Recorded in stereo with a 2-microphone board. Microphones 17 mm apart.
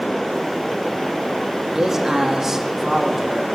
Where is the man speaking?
30° right (ahead or behind), 1.9 m.